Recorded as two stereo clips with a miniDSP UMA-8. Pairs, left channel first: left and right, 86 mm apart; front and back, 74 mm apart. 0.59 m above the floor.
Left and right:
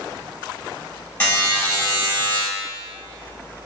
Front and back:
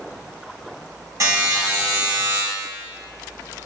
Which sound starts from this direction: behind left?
A buzzer, at 1.2 s.